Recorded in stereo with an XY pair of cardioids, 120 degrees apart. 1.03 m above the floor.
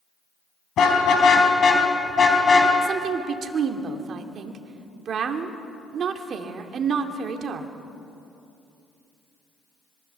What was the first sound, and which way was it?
A car horn, 55° left.